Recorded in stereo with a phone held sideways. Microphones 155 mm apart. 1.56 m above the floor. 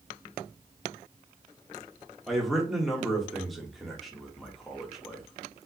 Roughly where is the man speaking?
Centre.